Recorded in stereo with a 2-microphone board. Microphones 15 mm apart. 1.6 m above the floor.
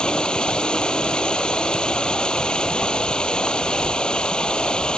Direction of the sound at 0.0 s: 65° left (ahead or behind).